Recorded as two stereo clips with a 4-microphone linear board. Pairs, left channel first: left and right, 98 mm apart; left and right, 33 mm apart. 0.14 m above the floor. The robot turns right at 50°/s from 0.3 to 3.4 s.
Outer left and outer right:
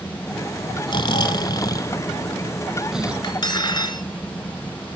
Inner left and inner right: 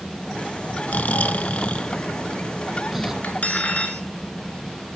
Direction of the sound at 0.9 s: 85° left.